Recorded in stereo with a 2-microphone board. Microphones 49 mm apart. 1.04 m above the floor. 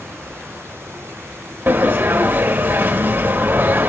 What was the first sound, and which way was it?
A sliding door, 40° right (ahead or behind).